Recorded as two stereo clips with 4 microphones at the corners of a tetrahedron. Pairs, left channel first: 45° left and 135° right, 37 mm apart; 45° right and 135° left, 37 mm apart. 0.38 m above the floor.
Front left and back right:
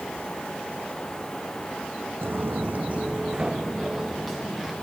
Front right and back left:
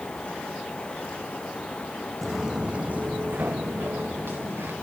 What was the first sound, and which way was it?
Footsteps, 135° right.